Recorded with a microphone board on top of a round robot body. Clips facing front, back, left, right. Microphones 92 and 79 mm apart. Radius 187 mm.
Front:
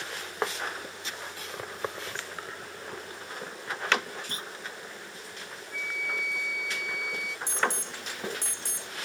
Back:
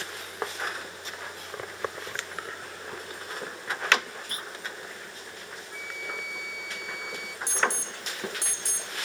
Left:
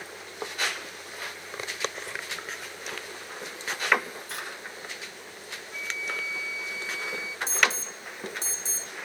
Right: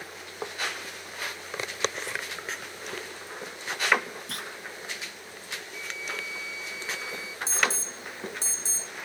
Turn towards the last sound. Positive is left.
turn(degrees=-35)